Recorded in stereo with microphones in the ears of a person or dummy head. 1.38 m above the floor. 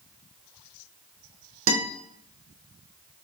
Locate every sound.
1.7 s a guitar: 75° right (ahead or behind), 1.5 m